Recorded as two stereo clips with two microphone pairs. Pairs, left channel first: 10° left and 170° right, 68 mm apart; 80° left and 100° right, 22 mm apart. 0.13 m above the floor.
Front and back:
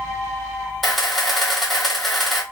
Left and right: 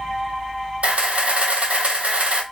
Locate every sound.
0.8 s a camera shutter: 80° right, 1.1 m